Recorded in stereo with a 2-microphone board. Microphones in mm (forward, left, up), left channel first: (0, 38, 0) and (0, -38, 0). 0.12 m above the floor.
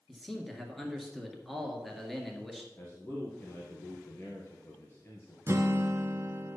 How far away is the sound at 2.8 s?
About 1.9 m.